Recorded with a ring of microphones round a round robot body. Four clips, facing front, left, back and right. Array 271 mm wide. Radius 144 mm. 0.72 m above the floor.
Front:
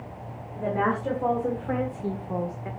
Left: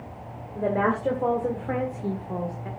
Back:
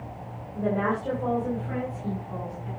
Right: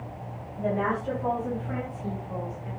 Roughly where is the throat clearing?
I don't hear throat clearing.